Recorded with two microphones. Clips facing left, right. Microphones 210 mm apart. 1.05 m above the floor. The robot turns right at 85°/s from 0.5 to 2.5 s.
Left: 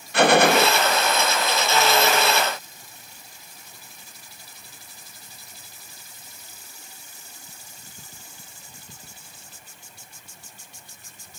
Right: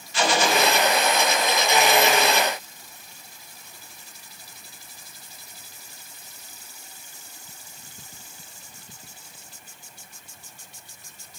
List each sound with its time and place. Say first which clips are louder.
0.1 s a gunshot: left 6 dB; 60° left (ahead or behind), 0.8 m; by 0.7 s 75° left (ahead or behind), 0.8 m